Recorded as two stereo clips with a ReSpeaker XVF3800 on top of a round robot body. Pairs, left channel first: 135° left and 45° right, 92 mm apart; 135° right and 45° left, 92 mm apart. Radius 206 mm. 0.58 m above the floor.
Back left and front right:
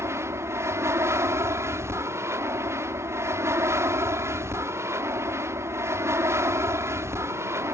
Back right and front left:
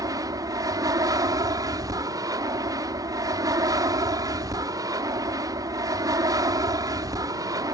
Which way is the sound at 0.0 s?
5° left.